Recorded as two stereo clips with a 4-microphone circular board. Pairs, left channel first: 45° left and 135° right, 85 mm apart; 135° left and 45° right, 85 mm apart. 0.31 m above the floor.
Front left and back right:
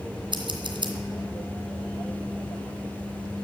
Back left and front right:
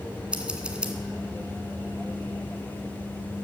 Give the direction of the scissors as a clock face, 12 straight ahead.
4 o'clock.